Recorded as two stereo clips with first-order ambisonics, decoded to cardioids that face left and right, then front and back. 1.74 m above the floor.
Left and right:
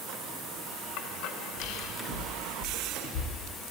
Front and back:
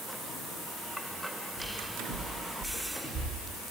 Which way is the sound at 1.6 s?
150° left.